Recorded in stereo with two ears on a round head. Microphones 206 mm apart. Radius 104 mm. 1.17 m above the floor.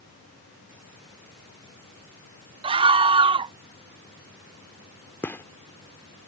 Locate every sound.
2.6 s a scream: 25° right (ahead or behind)
5.2 s a gunshot: 10° left (ahead or behind)